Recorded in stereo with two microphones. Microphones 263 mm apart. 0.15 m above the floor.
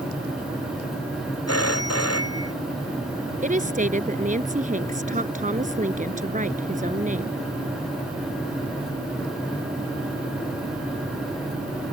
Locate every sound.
1.5 s a phone ringing: 75° left (ahead or behind)
3.4 s a woman speaking: 30° right (ahead or behind)